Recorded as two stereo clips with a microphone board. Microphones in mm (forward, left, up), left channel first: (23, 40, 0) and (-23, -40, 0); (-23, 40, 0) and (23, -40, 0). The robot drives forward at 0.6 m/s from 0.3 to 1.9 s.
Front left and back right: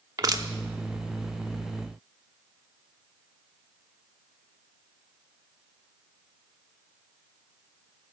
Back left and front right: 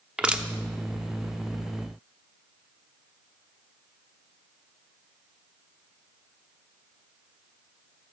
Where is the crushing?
135° right, 0.8 m; by 0.5 s 140° right, 0.9 m.